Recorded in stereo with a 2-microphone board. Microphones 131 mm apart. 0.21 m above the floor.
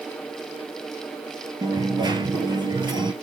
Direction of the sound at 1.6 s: 35° right (ahead or behind).